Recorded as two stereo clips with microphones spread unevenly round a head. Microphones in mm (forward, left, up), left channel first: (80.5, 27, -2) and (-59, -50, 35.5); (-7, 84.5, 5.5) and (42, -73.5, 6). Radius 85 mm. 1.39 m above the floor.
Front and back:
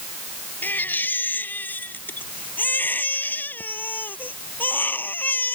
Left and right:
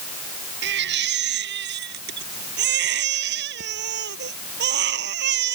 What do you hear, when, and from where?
0.6 s a baby crying: 50° right